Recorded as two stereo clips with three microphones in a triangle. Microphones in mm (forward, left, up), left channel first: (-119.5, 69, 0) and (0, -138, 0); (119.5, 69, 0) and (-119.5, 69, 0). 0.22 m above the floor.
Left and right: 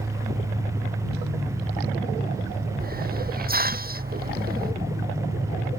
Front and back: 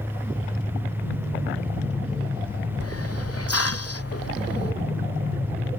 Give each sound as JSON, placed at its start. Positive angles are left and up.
{"t": 2.8, "sound": "a hiss", "azimuth_deg": -10}